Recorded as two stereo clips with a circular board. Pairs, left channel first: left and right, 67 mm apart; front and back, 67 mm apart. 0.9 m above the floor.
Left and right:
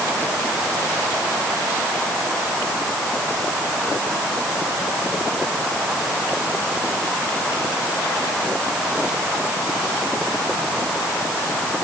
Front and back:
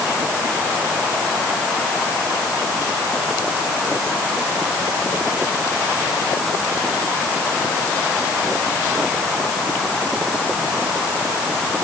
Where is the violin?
I don't hear a violin.